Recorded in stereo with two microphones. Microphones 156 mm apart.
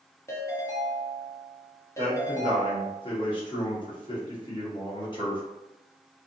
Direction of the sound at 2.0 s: 30° left (ahead or behind).